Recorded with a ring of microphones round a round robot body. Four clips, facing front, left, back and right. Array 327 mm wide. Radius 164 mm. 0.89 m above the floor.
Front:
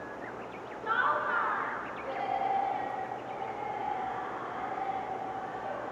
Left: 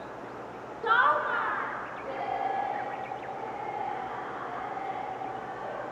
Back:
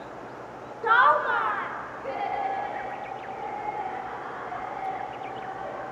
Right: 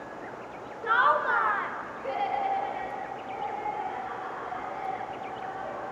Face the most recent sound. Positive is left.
turn(degrees=-105)